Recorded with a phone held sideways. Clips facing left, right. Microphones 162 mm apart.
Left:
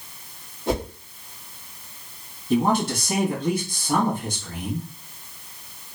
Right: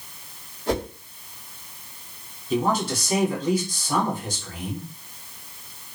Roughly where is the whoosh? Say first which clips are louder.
Even; centre.